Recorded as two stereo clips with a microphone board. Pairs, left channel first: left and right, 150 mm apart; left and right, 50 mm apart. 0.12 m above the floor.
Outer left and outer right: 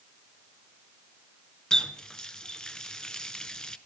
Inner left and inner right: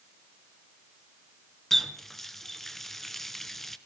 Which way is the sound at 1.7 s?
5° left (ahead or behind).